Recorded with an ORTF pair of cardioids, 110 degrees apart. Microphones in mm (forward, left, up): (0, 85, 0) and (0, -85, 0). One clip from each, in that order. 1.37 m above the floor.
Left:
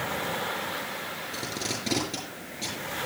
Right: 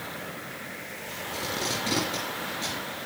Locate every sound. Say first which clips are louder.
1.3 s tape being pulled: right 5 dB; 15° left, 9.5 m